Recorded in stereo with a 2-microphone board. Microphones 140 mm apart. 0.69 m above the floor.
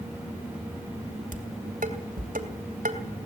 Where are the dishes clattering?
80° right, 2.5 m.